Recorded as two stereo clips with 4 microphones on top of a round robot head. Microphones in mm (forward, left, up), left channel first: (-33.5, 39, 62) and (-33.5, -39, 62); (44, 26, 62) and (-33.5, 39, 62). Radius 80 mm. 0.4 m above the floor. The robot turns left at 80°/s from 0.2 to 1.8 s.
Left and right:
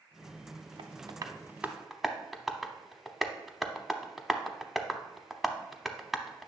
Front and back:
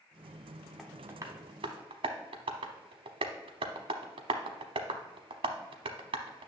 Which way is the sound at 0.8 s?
100° right.